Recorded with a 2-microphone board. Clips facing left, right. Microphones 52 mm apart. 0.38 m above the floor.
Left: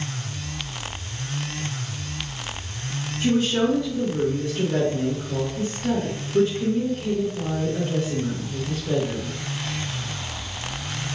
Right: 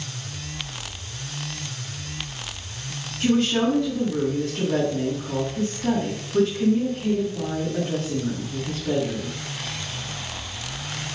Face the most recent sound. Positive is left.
turn(degrees=-50)  # may be behind; listen again after turning